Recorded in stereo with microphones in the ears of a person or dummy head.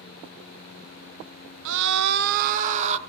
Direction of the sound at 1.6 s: 65° right (ahead or behind).